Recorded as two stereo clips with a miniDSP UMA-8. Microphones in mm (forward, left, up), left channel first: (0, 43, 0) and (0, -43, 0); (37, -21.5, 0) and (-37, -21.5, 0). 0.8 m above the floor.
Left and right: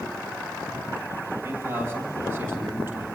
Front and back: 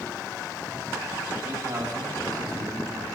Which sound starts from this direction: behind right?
A man speaking, at 1.4 s.